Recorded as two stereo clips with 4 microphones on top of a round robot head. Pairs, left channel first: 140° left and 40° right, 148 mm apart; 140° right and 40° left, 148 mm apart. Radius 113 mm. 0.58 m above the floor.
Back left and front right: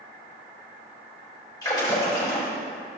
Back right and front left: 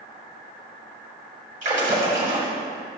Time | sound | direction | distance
1.6 | a splash | 75° left | 3 m